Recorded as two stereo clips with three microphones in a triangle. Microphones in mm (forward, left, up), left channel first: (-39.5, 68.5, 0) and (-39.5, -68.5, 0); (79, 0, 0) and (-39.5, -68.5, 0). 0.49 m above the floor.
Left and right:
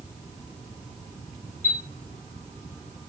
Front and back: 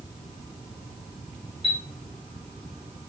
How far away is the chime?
About 1.7 m.